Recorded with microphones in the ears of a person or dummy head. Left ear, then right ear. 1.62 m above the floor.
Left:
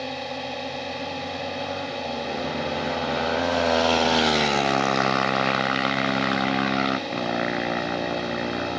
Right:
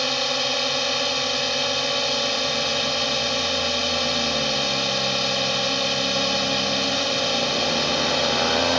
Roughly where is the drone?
Right.